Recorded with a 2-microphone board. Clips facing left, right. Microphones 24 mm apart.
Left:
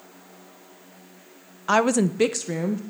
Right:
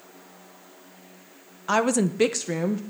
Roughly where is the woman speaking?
Centre.